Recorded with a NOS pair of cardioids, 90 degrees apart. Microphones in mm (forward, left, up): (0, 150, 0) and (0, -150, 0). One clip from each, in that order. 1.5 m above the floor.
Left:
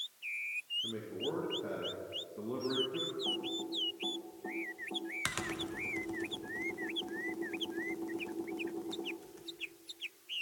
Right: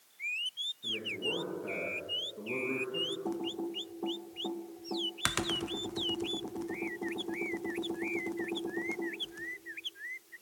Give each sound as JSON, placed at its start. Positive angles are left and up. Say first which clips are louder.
{"t": 0.8, "sound": "a man speaking", "louder": "right 4 dB", "azimuth_deg": 15, "distance_m": 2.5}
{"t": 3.2, "sound": "typing on a keyboard", "louder": "even", "azimuth_deg": -25, "distance_m": 0.8}